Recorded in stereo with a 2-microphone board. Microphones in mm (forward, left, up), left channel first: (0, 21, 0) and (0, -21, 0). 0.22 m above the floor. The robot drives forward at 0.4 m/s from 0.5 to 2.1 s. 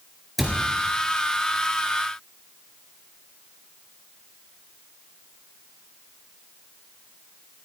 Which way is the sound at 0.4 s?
5° right (ahead or behind).